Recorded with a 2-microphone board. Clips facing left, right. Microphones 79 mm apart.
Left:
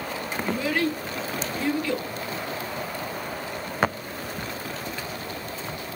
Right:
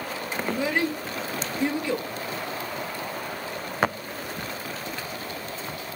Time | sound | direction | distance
0.4 | a child speaking | 20° right (ahead or behind) | 0.9 m